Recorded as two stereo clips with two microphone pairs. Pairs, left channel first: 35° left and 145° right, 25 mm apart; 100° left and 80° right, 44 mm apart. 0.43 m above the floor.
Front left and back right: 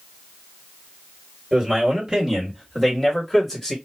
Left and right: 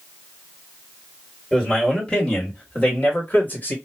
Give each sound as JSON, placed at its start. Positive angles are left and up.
{"t": 1.5, "sound": "a man speaking", "azimuth_deg": 170, "distance_m": 1.8}